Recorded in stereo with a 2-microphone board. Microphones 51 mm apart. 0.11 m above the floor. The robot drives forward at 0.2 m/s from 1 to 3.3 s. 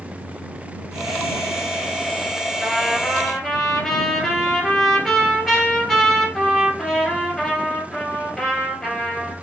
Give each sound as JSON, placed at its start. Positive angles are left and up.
{"t": 2.6, "sound": "a trumpet", "side_deg": 0, "distance_m": 1.9}